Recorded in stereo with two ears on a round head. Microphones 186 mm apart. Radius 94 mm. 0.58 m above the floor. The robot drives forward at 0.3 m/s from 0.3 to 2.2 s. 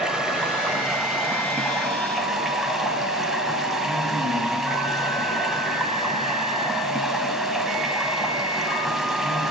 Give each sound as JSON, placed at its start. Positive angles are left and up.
{"t": 0.0, "sound": "running water", "side_deg": -5, "distance_m": 1.0}